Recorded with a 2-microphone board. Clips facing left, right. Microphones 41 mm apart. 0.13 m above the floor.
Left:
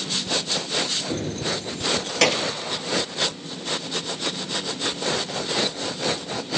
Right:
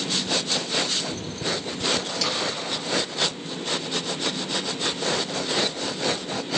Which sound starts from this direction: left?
Keys jangling, at 1.1 s.